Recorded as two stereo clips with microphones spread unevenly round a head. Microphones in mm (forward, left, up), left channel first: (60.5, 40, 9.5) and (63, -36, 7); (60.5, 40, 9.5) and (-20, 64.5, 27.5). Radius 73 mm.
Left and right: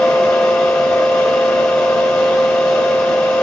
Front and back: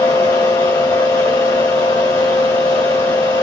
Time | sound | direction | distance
0.0 | a fan | 10° left | 1.4 m